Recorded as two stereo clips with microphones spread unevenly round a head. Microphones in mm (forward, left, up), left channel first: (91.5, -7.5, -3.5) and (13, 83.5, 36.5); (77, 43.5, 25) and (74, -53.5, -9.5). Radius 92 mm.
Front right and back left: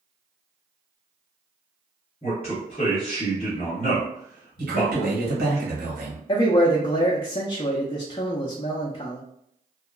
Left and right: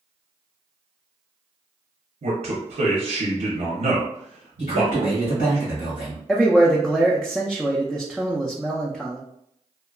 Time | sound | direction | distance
2.2 | a man speaking | 105° right | 0.7 m
4.6 | a man speaking | 140° left | 1.5 m
6.3 | a man speaking | straight ahead | 0.5 m